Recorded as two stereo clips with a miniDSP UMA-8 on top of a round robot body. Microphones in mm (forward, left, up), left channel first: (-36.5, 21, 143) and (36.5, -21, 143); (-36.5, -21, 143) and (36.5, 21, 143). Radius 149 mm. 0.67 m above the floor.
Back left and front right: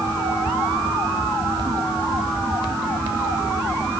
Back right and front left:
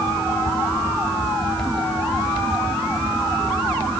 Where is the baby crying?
No baby crying in this recording.